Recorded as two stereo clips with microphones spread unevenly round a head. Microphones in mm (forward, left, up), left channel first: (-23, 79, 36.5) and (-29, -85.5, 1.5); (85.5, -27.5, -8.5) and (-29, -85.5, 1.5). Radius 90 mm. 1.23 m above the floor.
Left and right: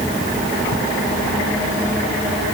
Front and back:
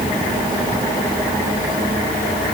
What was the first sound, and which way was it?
Only background noise.